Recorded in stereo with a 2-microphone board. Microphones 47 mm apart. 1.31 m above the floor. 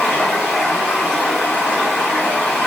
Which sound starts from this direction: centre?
Running water, at 0.0 s.